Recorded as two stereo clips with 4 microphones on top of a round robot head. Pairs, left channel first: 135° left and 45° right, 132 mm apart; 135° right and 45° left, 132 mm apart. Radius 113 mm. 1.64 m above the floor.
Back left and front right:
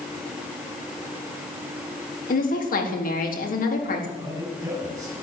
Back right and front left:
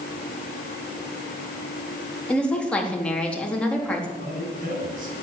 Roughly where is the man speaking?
Ahead.